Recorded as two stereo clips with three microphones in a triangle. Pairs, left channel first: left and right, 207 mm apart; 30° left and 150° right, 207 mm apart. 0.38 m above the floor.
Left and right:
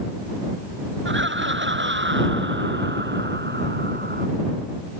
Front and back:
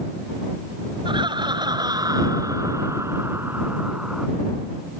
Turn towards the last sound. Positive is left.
turn(degrees=-65)